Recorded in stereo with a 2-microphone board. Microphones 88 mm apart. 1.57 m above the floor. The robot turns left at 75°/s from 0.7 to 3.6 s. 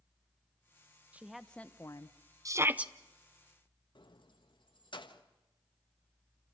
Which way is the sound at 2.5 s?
135° right.